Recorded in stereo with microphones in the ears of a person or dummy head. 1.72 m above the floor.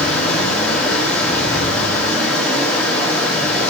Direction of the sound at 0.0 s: 5° left (ahead or behind).